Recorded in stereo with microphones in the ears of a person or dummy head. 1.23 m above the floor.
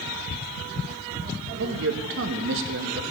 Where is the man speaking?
60° right (ahead or behind), 0.9 m.